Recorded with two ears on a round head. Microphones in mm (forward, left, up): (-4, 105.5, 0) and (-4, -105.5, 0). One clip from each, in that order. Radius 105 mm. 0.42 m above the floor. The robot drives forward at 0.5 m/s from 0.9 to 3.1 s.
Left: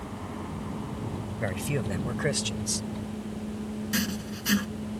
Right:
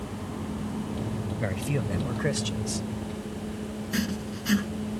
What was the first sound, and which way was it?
A helicopter, 30° left (ahead or behind).